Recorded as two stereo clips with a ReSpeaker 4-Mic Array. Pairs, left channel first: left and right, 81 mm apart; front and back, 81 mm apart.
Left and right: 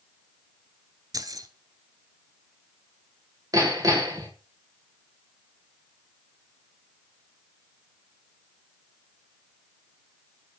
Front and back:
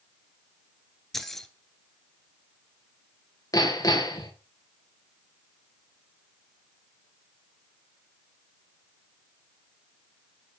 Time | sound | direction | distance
1.1 | keys jangling | 85° right | 1.4 m
3.5 | hammering | 45° right | 4 m